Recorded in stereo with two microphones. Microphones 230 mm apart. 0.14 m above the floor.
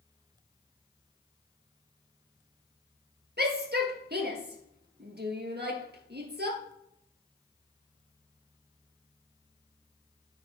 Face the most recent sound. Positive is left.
turn(degrees=-45)  # may be behind; listen again after turning